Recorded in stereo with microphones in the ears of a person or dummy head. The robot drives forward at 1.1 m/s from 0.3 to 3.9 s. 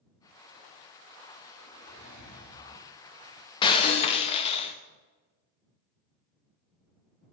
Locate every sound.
1.6 s a zipper: 60° left (ahead or behind), 3 m; by 2.9 s 40° left (ahead or behind), 3.5 m
3.6 s breaking glass: 25° left (ahead or behind), 0.8 m; by 4.8 s 35° left (ahead or behind), 0.6 m